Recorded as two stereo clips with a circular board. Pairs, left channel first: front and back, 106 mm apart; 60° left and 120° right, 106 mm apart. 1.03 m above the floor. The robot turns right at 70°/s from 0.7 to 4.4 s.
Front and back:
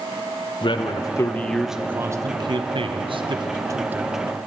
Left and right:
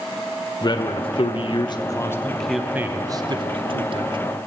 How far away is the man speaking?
About 0.6 m.